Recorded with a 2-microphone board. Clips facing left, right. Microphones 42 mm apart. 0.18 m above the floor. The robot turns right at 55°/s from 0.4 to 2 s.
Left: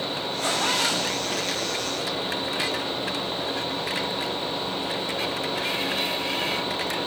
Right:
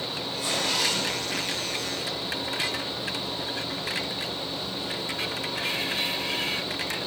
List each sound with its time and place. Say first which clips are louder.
0.4 s a zipper: left 3 dB; 45° left (ahead or behind), 7 m; by 1.9 s 50° left (ahead or behind), 7 m